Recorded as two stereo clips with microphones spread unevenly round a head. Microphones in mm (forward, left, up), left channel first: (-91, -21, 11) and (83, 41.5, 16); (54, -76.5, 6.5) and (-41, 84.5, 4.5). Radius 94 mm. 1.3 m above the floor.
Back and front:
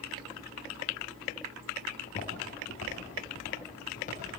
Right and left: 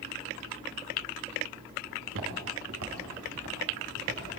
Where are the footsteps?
145° left, 5 m; by 4.2 s 150° left, 8 m.